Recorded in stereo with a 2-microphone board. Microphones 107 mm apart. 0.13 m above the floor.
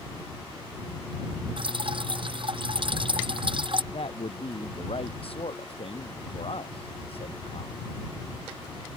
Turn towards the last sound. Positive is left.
turn(degrees=70)  # may be behind; listen again after turning